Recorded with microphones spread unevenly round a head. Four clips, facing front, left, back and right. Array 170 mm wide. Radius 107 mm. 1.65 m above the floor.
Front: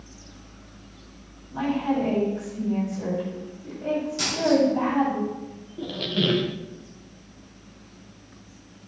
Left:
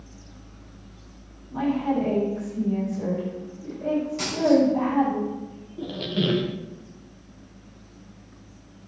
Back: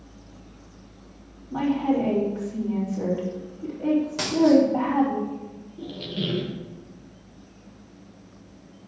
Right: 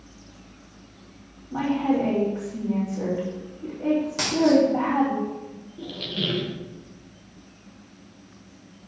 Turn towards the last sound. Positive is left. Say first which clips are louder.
# left 5 dB, front 5 dB
turn(degrees=30)